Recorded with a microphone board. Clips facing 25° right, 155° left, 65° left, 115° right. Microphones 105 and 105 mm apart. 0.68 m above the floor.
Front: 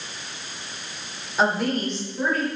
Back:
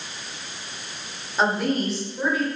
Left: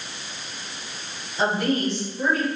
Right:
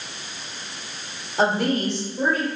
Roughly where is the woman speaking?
Right.